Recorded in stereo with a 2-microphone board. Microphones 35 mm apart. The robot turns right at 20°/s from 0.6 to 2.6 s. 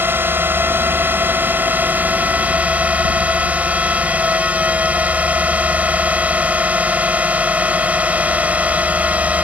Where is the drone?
85° right; by 9.4 s 45° right.